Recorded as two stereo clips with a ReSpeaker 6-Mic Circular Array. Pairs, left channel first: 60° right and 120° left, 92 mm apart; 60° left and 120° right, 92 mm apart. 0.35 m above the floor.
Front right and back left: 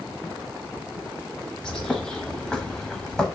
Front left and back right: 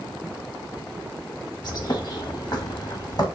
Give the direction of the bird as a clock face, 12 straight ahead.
11 o'clock.